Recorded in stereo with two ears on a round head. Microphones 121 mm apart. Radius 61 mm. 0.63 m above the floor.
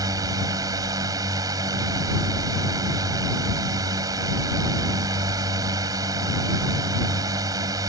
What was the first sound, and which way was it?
A drone, 25° right (ahead or behind).